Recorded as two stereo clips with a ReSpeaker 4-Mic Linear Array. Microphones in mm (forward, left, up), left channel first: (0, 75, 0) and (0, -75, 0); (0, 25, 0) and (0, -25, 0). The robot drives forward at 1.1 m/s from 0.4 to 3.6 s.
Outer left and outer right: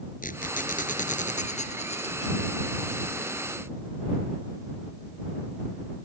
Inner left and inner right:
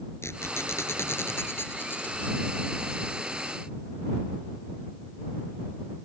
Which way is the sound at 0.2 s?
65° left (ahead or behind).